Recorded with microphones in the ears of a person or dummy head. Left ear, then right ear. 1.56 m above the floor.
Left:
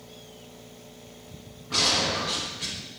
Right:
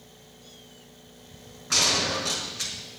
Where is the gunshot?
65° right (ahead or behind), 5 m.